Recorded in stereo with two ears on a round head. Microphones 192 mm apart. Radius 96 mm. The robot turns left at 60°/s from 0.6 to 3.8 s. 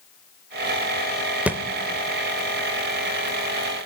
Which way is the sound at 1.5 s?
5° right (ahead or behind).